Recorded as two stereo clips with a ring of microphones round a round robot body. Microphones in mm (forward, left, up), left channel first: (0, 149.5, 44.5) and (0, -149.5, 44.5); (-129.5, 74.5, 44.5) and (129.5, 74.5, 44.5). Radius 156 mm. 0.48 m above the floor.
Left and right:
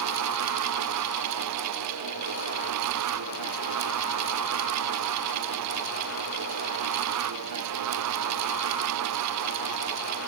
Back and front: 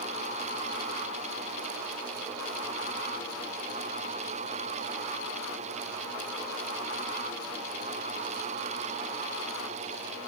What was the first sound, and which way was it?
Only background noise.